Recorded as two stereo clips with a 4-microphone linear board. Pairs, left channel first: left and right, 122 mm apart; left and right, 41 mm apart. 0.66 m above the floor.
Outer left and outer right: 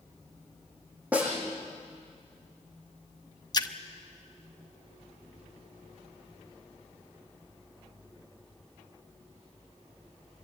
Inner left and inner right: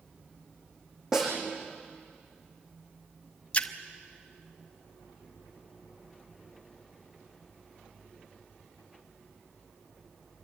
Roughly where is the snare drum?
Centre.